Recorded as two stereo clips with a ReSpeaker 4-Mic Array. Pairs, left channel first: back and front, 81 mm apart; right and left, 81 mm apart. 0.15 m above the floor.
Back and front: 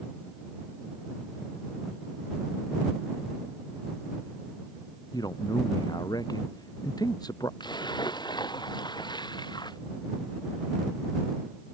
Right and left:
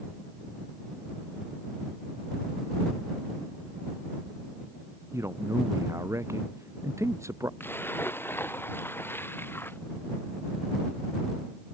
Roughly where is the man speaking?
Behind left.